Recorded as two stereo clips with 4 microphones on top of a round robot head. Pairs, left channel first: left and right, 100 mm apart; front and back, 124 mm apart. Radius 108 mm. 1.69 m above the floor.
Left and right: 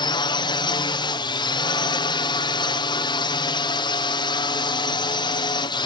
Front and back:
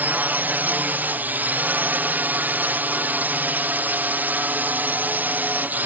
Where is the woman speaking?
No woman speaking in this recording.